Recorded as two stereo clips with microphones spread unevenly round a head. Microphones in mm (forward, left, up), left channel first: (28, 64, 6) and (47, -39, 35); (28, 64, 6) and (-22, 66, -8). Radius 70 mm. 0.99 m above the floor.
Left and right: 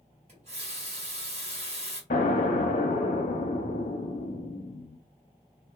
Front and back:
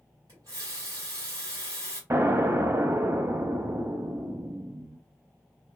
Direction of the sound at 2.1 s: 135° left.